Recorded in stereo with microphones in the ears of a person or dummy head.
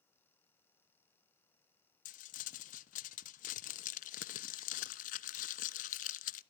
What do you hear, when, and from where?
2.0 s crumpling: 45° left (ahead or behind), 0.8 m